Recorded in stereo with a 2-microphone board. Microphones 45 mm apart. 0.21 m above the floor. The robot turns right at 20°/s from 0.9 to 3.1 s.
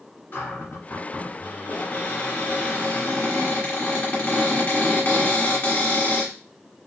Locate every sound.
0.3 s a cupboard door: 70° left, 1.9 m; by 6.3 s 115° left, 1.9 m